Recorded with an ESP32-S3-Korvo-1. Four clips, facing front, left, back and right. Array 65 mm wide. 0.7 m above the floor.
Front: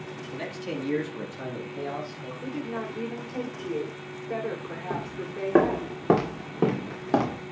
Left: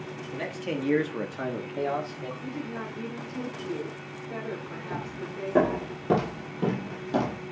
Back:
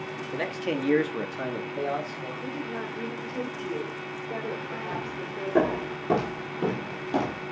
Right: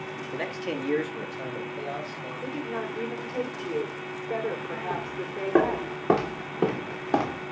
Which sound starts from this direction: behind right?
A man speaking, at 0.3 s.